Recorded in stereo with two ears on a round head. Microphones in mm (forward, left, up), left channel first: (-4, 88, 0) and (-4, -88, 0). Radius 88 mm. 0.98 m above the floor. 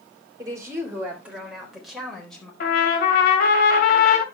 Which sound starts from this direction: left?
A trumpet, at 2.6 s.